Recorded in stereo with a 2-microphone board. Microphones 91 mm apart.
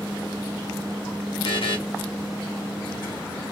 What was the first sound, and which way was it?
A buzzer, 70° left (ahead or behind).